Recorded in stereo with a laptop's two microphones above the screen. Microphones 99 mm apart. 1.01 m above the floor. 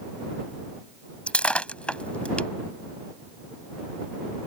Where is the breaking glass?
10° left (ahead or behind).